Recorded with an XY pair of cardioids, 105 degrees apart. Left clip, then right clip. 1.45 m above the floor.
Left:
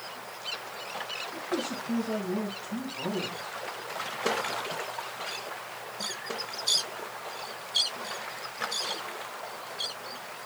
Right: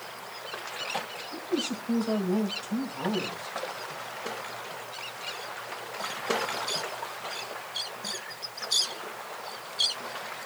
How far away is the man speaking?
About 4.5 m.